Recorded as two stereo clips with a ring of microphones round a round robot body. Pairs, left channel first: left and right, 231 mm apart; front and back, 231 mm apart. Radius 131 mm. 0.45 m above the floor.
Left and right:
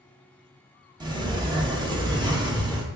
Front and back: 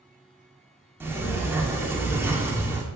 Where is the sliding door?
115° right, 0.6 m.